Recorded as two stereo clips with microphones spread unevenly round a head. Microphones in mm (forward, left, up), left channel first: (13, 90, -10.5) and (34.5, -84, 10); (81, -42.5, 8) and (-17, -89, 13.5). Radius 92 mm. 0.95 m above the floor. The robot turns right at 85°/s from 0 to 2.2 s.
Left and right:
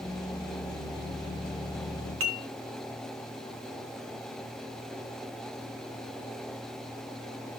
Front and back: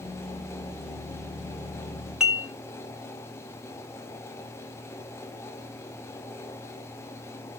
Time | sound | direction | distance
2.2 | dishes clattering | 70° right | 3 m